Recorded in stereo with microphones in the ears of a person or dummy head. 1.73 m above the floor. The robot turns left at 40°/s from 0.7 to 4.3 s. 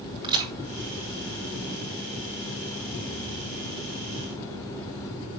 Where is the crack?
25° right (ahead or behind), 5.5 m.